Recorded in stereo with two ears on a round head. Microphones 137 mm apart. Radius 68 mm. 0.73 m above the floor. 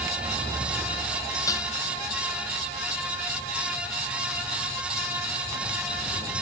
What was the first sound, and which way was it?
Dishes clattering, 25° left (ahead or behind).